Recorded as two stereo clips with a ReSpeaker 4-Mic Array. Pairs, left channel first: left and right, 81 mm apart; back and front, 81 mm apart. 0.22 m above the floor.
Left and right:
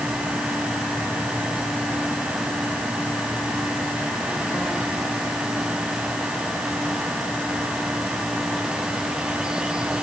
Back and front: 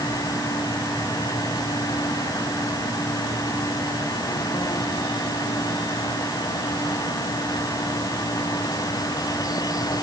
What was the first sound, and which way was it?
Only background noise.